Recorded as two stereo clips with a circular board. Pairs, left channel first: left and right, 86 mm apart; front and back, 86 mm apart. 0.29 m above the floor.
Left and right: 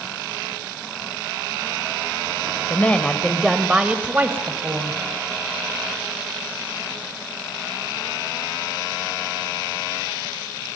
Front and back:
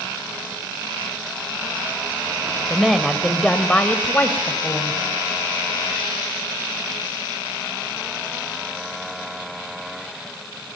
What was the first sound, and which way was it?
A woman speaking, 105° left.